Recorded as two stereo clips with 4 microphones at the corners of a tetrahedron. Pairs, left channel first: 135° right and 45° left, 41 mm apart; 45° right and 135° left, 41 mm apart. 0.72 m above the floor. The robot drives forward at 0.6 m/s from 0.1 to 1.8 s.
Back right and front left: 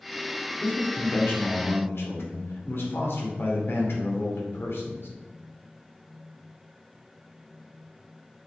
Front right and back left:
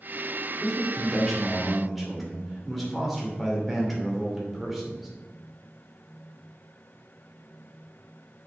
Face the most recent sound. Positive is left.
turn(degrees=-135)